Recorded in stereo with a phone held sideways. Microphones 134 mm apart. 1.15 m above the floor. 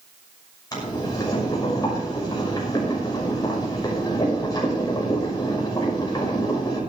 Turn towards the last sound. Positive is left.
turn(degrees=30)  # may be behind; listen again after turning